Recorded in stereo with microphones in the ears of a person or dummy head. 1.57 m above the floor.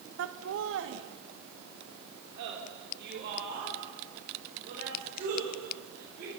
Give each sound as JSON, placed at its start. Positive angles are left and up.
{"t": 0.2, "sound": "laughter", "side_deg": -85, "distance_m": 1.6}